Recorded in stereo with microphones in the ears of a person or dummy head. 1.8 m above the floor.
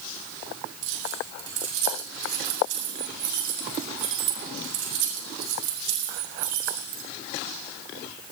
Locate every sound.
0.8 s keys jangling: 75° right (ahead or behind), 8 m